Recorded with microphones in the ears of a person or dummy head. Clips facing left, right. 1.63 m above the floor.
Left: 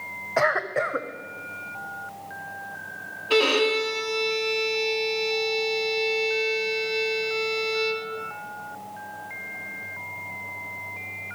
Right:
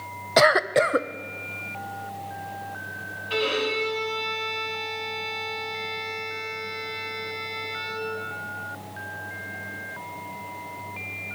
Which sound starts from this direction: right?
A cough, at 0.4 s.